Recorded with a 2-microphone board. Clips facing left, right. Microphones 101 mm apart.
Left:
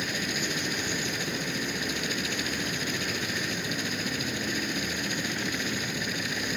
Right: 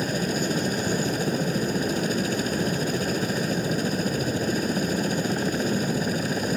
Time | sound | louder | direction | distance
0.0 | a helicopter | right 7 dB | 40° right (ahead or behind) | ?